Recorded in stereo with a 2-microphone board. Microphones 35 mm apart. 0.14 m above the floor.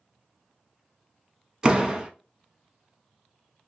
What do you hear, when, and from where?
1.6 s a door slam: 20° right (ahead or behind), 0.7 m